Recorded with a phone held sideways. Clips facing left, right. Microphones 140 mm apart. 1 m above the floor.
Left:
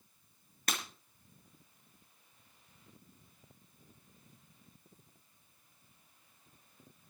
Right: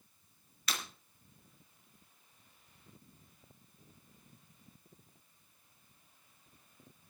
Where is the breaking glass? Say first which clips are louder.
Left 2 dB; 50° left (ahead or behind), 3 m.